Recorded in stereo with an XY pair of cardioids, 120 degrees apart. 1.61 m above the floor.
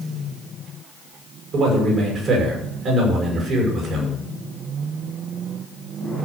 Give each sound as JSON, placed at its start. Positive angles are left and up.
{"t": 1.5, "sound": "a man speaking", "azimuth_deg": -50, "distance_m": 8.5}